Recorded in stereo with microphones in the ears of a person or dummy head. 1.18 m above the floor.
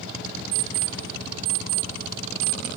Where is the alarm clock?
55° right (ahead or behind), 1.4 m.